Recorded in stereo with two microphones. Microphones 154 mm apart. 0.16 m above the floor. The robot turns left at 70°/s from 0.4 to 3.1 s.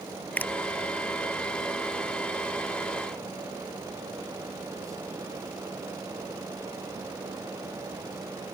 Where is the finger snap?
10° left (ahead or behind); by 0.5 s 20° left (ahead or behind).